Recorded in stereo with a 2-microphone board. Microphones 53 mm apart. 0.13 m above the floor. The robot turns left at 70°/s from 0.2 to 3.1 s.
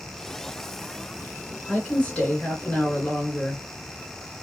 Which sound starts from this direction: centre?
A woman speaking, at 1.7 s.